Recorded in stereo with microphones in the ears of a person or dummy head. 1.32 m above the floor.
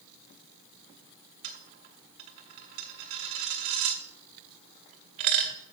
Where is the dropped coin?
25° right (ahead or behind), 0.9 m.